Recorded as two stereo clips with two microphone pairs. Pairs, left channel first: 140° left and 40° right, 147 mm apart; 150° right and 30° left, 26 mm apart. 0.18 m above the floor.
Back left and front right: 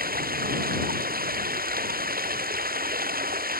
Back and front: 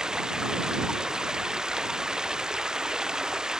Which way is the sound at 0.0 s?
35° right.